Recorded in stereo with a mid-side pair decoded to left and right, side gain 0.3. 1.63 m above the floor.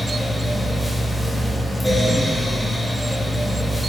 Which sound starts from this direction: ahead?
A fan, at 0.0 s.